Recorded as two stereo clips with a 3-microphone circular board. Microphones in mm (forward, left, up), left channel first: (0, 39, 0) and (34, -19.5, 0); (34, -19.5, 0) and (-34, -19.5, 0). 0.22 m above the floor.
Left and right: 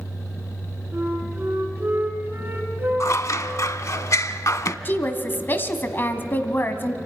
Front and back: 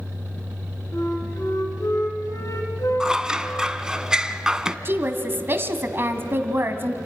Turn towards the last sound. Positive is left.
turn(degrees=155)